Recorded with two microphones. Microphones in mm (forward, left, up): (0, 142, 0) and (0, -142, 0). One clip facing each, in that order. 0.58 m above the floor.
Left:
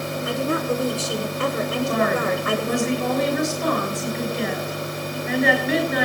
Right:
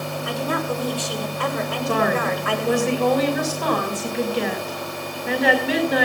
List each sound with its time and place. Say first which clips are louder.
0.2 s a woman speaking: left 2 dB; 25° left (ahead or behind), 7 m
1.9 s a woman speaking: right 3 dB; 75° right (ahead or behind), 5 m